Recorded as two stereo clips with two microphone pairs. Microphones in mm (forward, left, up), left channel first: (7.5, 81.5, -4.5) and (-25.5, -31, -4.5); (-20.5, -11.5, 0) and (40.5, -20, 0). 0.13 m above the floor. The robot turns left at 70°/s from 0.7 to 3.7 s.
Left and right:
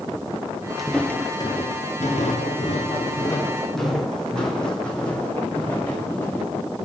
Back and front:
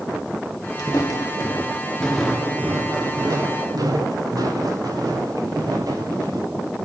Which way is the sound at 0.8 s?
165° left.